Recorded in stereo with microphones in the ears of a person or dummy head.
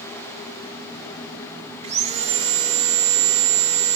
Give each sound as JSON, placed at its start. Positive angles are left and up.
{"t": 1.8, "sound": "sawing", "side_deg": -30, "distance_m": 0.8}